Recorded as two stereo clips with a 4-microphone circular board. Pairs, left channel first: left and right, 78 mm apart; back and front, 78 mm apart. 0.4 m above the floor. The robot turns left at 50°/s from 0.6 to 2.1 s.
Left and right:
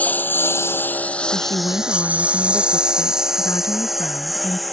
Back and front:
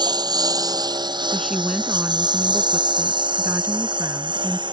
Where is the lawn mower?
20° left; by 4.7 s straight ahead.